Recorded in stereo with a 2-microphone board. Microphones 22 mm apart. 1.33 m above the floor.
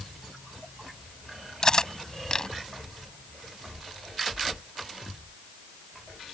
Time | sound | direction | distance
1.6 | cutlery clinking | 30° left (ahead or behind) | ?